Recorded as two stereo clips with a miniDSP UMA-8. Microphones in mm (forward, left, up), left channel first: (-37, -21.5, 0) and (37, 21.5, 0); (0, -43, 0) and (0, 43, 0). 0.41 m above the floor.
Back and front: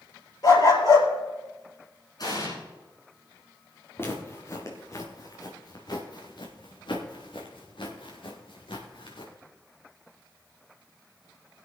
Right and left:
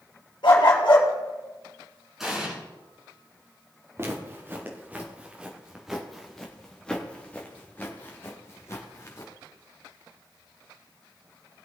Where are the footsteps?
150° left, 3.5 m; by 9.3 s 140° right, 4 m.